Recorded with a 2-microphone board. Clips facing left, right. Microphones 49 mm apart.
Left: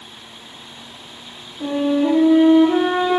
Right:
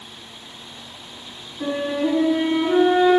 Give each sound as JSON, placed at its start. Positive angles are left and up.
{"t": 1.6, "sound": "a flute", "side_deg": -10, "distance_m": 1.3}